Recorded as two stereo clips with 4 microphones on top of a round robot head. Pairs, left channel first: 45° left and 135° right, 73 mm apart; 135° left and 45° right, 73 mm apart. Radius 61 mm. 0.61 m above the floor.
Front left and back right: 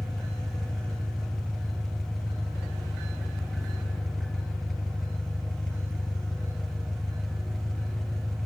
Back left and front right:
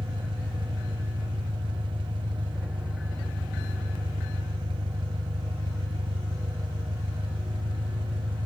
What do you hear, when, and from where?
0.0 s an engine running: 45° right, 1.2 m